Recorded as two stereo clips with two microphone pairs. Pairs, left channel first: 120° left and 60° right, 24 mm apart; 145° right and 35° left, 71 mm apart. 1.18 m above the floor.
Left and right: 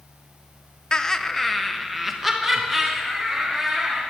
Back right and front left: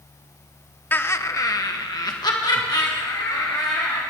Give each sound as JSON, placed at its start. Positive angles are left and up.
{"t": 0.9, "sound": "laughter", "azimuth_deg": 160, "distance_m": 0.8}